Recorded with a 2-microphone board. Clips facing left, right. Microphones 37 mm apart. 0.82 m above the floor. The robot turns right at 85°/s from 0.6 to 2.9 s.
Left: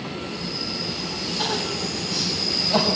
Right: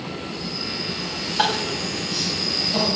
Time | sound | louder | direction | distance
1.4 | crying | right 5 dB | 75° right (ahead or behind) | 2.5 m